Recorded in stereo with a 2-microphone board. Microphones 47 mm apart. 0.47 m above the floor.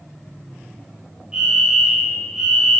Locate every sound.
1.3 s a fire alarm: 20° right (ahead or behind), 3 m